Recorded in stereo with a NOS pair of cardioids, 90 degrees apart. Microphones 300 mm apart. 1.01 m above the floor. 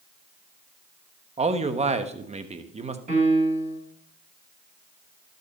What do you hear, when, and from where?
1.4 s a man speaking: 20° right, 1.2 m
3.1 s a piano: 25° right, 4 m